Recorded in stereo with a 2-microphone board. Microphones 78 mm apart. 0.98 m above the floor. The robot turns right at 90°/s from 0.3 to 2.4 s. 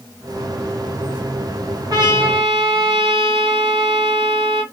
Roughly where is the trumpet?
Behind right.